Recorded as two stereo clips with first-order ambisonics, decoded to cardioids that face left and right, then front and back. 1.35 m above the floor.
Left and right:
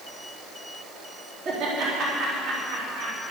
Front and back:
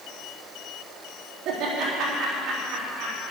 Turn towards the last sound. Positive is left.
turn(degrees=-135)